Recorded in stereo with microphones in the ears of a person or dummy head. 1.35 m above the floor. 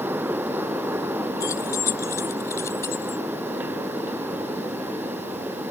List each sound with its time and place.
1.4 s keys jangling: 20° left (ahead or behind); by 3.2 s 15° left (ahead or behind)